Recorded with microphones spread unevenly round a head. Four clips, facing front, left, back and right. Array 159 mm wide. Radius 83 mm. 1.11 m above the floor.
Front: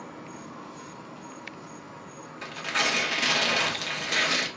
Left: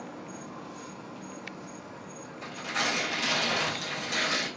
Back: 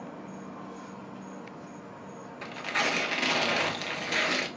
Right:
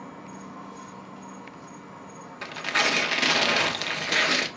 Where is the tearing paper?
80° right, 0.8 m.